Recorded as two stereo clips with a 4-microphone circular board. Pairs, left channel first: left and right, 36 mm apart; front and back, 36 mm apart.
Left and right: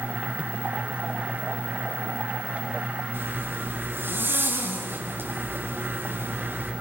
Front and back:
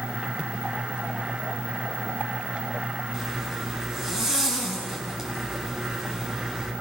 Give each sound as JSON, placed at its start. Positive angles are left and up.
{"t": 3.1, "sound": "a zipper", "azimuth_deg": -100, "distance_m": 7.0}